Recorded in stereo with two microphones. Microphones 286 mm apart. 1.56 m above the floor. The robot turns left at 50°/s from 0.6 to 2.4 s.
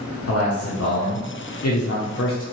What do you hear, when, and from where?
0.3 s a man speaking: 120° left, 0.7 m; by 2.4 s 30° left, 0.7 m